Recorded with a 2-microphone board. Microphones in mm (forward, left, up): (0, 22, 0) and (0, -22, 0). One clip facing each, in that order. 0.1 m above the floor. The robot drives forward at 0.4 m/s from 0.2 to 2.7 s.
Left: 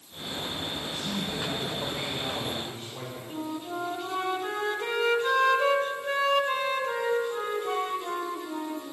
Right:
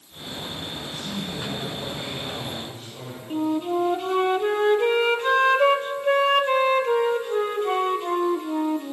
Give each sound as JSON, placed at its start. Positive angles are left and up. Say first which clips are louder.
{"t": 0.8, "sound": "a man speaking", "louder": "right 1 dB", "side_deg": 15, "distance_m": 7.5}
{"t": 3.3, "sound": "a flute", "louder": "right 11 dB", "side_deg": -40, "distance_m": 0.7}